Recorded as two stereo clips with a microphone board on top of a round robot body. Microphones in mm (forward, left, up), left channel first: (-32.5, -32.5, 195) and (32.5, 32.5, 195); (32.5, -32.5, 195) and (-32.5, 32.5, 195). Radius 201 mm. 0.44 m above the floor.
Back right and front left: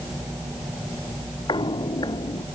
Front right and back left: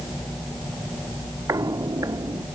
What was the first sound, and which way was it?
Footsteps, 170° right.